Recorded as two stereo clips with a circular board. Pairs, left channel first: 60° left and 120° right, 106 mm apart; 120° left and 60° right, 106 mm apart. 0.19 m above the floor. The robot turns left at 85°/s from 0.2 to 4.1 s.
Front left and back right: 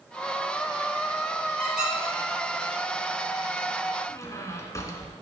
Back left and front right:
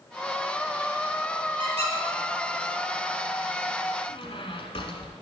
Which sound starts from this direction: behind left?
A squeak, at 4.1 s.